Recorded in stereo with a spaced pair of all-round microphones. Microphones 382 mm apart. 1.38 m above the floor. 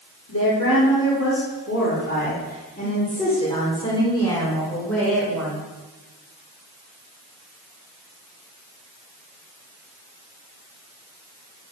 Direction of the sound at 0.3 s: 40° left (ahead or behind).